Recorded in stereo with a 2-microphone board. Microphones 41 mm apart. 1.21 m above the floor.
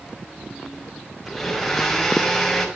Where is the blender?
Centre (ahead or behind), 6 m.